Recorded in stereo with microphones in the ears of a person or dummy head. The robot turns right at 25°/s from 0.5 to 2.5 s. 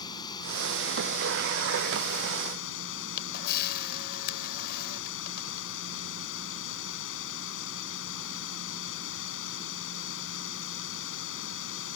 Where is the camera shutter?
60° left (ahead or behind).